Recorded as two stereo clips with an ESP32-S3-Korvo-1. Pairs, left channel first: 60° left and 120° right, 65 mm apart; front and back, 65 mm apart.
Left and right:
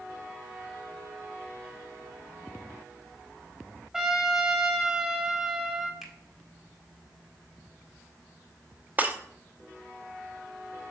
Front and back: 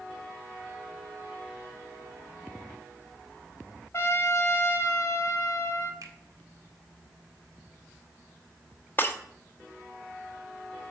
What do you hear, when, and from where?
3.9 s a trumpet: 35° right, 1.4 m
6.0 s a finger snap: 155° left, 1.4 m
9.0 s breaking glass: 60° right, 0.8 m